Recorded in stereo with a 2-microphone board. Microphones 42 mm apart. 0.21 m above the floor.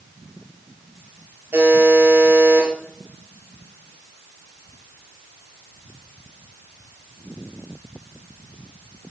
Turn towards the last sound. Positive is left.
turn(degrees=-75)  # may be behind; listen again after turning